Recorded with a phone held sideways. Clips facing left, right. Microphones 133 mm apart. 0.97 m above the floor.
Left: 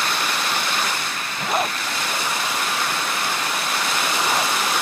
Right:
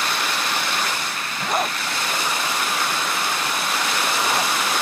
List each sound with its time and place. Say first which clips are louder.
1.4 s a zipper: even; centre (ahead or behind)